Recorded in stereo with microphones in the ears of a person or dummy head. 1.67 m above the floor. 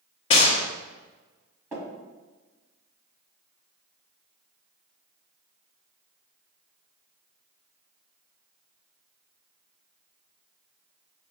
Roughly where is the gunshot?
Left.